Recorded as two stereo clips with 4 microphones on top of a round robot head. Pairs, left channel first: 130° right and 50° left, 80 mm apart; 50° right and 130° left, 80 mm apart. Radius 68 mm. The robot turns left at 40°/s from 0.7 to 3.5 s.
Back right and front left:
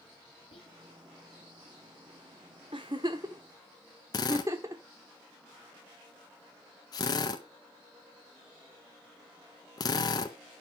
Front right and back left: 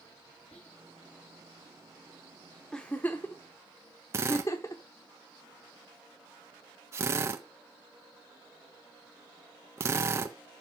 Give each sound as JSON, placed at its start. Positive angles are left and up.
{"t": 0.5, "sound": "whispering", "azimuth_deg": -125, "distance_m": 1.6}
{"t": 2.7, "sound": "a giggle", "azimuth_deg": 30, "distance_m": 1.0}
{"t": 4.1, "sound": "a drill", "azimuth_deg": -175, "distance_m": 1.4}